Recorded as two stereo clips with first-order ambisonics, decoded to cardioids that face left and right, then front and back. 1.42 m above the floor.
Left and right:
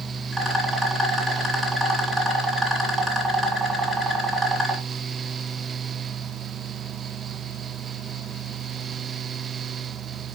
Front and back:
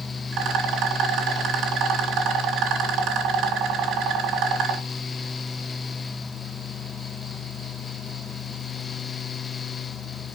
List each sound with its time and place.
0.3 s a rattle: 160° right, 1.9 m